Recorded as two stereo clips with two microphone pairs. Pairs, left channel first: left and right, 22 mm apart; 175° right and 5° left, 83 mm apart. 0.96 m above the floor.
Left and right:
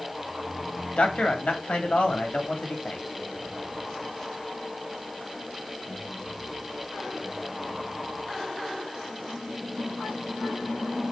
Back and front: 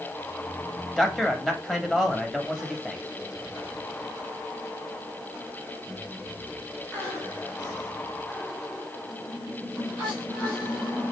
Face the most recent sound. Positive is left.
turn(degrees=100)